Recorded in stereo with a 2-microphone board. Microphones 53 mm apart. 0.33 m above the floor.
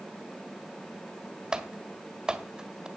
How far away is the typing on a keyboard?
About 1.6 m.